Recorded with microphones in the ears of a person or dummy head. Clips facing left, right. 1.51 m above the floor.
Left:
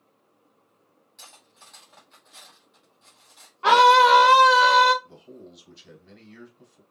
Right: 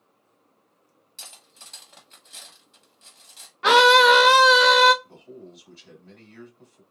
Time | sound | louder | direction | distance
1.2 | cutlery clinking | right 1 dB | 45° right (ahead or behind) | 1.7 m
3.6 | a scream | right 1 dB | 25° right (ahead or behind) | 1.3 m
5.0 | a man speaking | right 2 dB | 15° left (ahead or behind) | 3.5 m